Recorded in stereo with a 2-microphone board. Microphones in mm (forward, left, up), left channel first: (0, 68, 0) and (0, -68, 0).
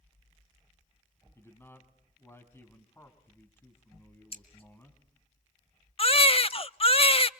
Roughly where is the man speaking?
Centre.